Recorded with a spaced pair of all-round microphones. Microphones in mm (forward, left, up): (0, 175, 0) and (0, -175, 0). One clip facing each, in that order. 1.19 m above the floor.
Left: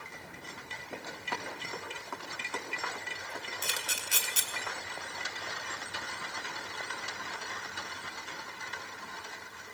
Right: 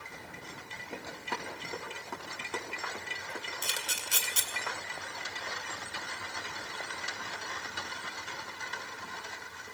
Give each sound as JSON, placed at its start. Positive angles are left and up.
{"t": 0.9, "sound": "running footsteps", "side_deg": -40, "distance_m": 5.5}
{"t": 3.6, "sound": "a camera shutter", "side_deg": -5, "distance_m": 2.5}